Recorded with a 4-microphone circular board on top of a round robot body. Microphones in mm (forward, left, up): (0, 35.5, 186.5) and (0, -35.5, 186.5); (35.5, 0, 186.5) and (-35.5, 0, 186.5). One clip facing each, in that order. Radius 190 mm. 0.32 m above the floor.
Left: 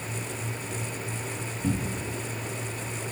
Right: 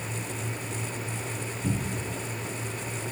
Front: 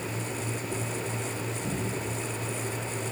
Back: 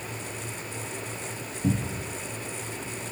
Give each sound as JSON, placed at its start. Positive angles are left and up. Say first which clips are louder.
{"t": 1.6, "sound": "a cupboard door", "louder": "left 2 dB, back 7 dB", "azimuth_deg": 160, "distance_m": 0.9}